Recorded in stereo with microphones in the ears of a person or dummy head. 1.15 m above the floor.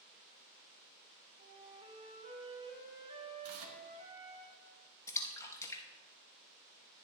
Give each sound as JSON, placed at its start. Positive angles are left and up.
{"t": 1.4, "sound": "a flute", "side_deg": -35, "distance_m": 3.0}
{"t": 3.4, "sound": "tearing paper", "side_deg": -80, "distance_m": 1.3}
{"t": 5.1, "sound": "a splash", "side_deg": 15, "distance_m": 1.1}